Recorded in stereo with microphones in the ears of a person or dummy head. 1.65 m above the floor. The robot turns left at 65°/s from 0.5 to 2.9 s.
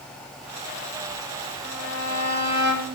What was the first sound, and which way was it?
A violin, 170° right.